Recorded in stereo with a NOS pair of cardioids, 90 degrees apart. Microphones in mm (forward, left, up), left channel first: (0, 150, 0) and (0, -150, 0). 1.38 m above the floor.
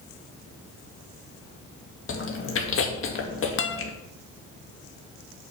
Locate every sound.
2.1 s chewing: 45° left, 2.5 m
3.6 s a guitar: 40° left, 1.5 m